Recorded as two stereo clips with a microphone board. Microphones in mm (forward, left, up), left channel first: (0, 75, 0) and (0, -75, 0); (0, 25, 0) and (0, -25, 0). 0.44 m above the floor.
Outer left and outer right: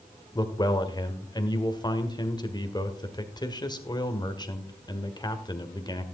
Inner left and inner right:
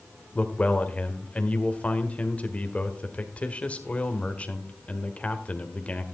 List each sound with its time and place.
0.3 s a man speaking: 30° left (ahead or behind), 1.5 m